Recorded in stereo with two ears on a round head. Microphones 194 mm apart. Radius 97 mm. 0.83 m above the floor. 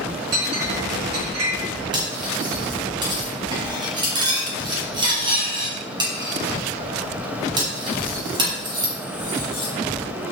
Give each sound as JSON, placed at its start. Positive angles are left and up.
{"t": 0.3, "sound": "a clink", "side_deg": -50, "distance_m": 5.5}
{"t": 1.9, "sound": "cutlery clinking", "side_deg": -20, "distance_m": 4.5}